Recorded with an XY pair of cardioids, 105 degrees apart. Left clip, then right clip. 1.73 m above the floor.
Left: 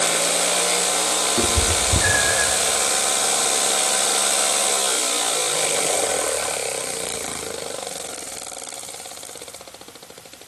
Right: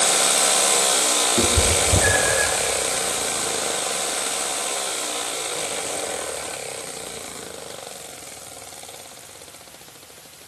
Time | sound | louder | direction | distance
1.4 | a cat meowing | right 1 dB | straight ahead | 3 m